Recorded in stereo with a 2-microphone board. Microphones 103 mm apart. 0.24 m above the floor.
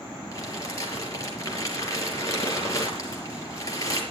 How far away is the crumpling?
About 5 m.